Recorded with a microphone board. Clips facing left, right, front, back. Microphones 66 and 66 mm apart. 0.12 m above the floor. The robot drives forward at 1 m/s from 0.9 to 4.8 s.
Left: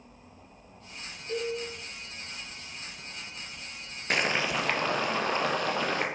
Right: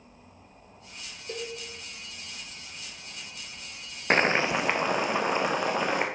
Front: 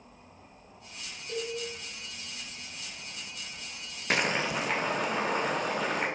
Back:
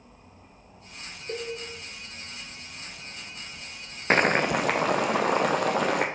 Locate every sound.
1.3 s a cowbell: 150° right, 2 m
4.1 s boiling: 135° right, 0.6 m; by 6.1 s 160° right, 1.1 m